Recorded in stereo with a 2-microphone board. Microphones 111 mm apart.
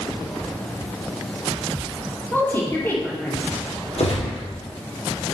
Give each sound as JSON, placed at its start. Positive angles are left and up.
{"t": 2.3, "sound": "a woman speaking", "side_deg": 20, "distance_m": 5.0}
{"t": 4.0, "sound": "a gunshot", "side_deg": 70, "distance_m": 4.0}